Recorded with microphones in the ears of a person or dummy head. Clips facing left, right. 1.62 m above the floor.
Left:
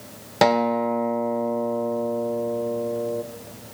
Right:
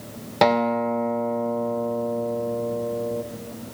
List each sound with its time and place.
0.4 s a guitar: 5° left (ahead or behind), 0.5 m